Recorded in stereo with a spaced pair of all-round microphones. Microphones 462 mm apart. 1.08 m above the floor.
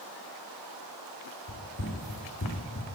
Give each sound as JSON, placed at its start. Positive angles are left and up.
{"t": 1.5, "sound": "running footsteps", "side_deg": 35, "distance_m": 3.5}